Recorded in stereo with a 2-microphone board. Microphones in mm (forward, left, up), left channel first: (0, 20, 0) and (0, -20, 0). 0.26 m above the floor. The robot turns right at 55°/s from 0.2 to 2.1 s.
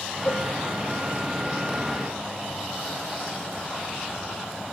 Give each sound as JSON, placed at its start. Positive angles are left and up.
{"t": 0.2, "sound": "a cowbell", "side_deg": 55, "distance_m": 7.0}